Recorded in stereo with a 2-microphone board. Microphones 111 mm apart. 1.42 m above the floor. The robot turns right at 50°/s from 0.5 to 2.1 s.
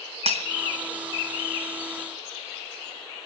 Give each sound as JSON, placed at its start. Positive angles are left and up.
{"t": 0.3, "sound": "breaking glass", "side_deg": -65, "distance_m": 3.0}